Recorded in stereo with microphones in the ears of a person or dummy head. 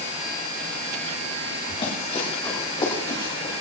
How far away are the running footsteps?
About 8.5 m.